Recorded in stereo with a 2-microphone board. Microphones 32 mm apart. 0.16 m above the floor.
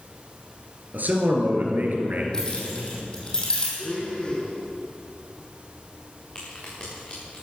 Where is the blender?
25° left (ahead or behind), 2.5 m.